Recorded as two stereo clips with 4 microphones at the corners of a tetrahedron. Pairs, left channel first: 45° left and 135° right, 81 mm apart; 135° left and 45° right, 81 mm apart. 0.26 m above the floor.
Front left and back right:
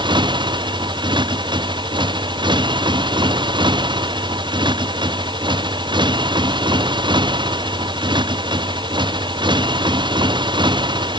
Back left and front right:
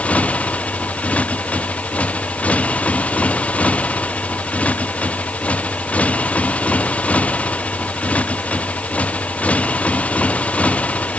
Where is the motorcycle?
150° right.